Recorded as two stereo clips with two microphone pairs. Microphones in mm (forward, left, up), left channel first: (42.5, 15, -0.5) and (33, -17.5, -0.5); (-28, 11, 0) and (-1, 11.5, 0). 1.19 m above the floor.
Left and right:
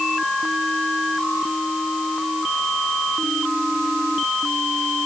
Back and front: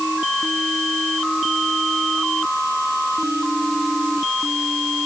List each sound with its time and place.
Only background noise.